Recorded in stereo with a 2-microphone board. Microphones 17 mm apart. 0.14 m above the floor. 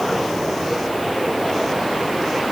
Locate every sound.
Only background noise.